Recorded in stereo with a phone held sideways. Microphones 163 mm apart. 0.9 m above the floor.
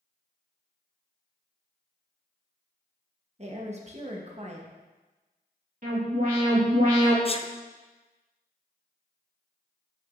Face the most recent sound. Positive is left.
turn(degrees=35)  # may be behind; listen again after turning